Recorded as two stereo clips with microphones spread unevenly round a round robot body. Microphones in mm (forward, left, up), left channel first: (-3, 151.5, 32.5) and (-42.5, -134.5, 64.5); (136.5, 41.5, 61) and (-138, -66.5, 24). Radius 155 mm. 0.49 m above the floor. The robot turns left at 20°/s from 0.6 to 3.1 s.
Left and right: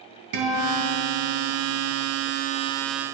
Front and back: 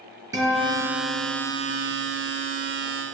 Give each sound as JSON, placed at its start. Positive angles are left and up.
{"t": 0.3, "sound": "a guitar", "azimuth_deg": -80, "distance_m": 2.5}